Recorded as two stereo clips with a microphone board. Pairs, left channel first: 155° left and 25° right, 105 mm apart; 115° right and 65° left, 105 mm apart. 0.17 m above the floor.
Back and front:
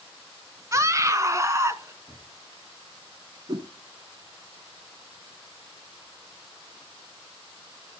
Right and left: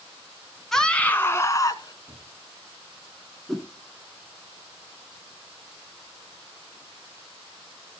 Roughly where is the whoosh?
Ahead right.